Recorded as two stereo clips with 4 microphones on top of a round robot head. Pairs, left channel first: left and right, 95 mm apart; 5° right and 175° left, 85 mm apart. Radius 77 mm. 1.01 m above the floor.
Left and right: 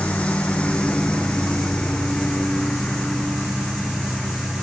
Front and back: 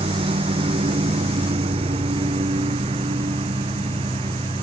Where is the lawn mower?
170° left; by 4.6 s straight behind.